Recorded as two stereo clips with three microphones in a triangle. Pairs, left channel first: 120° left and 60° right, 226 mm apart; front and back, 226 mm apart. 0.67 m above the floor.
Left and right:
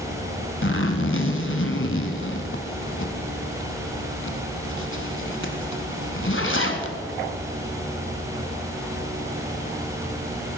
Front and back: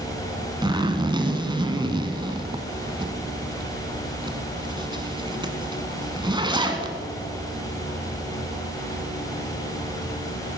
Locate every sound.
0.6 s a zipper: 110° left, 1.2 m